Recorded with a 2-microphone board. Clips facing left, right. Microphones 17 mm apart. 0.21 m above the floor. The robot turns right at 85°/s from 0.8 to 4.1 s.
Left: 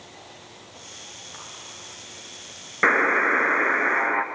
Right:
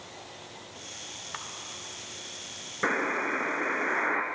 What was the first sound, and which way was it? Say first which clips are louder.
A camera shutter: right 5 dB; 30° right (ahead or behind).